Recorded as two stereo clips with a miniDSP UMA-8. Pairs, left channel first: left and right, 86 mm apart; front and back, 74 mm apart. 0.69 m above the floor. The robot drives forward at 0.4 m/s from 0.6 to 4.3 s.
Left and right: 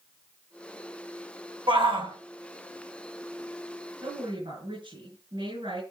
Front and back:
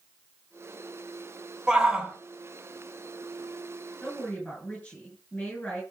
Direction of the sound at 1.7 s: 100° right.